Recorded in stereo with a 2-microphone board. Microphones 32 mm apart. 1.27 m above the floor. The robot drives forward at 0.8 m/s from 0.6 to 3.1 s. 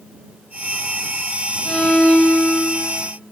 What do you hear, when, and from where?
1.6 s a violin: 55° left (ahead or behind), 0.9 m; by 3.0 s 30° left (ahead or behind), 1.5 m